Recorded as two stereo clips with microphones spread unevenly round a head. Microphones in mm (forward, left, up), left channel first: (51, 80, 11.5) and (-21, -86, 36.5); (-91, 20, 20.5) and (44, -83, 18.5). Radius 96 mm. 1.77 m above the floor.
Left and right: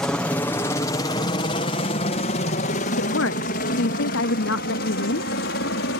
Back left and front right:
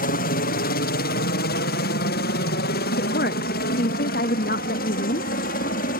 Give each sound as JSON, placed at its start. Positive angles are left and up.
{"t": 0.0, "sound": "a helicopter", "azimuth_deg": 145}
{"t": 2.9, "sound": "a woman speaking", "azimuth_deg": 95}